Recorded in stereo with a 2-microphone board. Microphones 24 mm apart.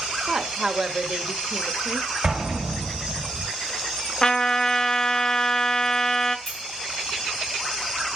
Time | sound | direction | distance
0.3 | a woman speaking | 30° right (ahead or behind) | 1.1 m
2.2 | an explosion | 40° right (ahead or behind) | 1.7 m
4.2 | a trumpet | 25° left (ahead or behind) | 0.7 m
6.5 | a clink | centre (ahead or behind) | 4 m